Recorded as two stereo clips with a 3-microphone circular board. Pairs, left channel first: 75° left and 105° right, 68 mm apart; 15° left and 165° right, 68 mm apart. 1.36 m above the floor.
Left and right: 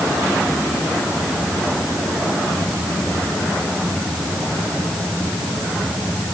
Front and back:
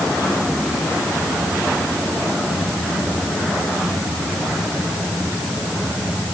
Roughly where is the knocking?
I don't hear knocking.